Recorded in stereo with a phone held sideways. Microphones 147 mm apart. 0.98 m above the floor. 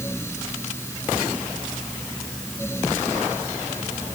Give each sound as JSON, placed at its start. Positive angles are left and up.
{"t": 0.0, "sound": "a fan", "side_deg": 15}